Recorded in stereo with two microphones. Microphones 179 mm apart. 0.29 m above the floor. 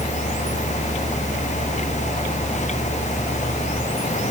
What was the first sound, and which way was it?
Only background noise.